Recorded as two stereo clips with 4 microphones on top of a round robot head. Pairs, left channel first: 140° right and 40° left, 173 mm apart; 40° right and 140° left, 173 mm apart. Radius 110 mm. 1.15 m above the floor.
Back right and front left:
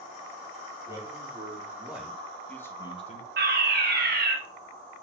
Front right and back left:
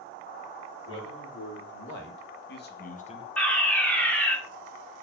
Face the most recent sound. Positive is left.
turn(degrees=45)